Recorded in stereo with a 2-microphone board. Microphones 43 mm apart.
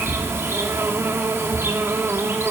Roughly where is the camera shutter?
I don't hear a camera shutter.